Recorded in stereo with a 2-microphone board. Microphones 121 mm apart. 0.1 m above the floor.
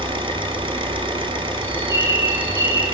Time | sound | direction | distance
0.0 | an engine running | 45° right (ahead or behind) | 0.7 m
1.6 | a bird | 25° right (ahead or behind) | 1.9 m